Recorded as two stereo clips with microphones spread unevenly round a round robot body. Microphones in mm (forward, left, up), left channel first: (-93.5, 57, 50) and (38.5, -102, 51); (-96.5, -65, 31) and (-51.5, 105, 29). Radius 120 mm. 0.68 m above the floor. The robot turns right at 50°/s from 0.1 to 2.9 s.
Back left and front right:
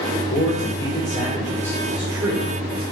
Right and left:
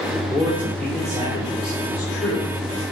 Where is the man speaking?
145° left, 2.5 m; by 2.8 s 90° right, 2.5 m.